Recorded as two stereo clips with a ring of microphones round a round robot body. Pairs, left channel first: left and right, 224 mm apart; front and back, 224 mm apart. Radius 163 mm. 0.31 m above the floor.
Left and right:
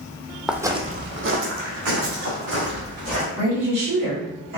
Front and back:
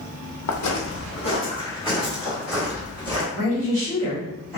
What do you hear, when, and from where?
0.5 s footsteps: straight ahead, 0.9 m; by 3.3 s 100° right, 3 m
3.4 s a woman speaking: 90° right, 1.8 m